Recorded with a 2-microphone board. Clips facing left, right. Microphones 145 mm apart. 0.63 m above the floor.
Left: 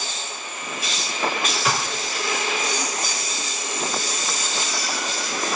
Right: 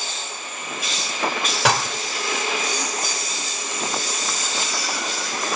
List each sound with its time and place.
1.6 s dishes clattering: 80° right, 1.1 m